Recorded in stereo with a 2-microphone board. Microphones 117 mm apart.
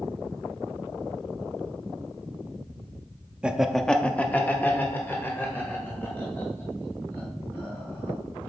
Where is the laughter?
10° right (ahead or behind), 0.6 m; by 8.2 s 20° left (ahead or behind), 5 m.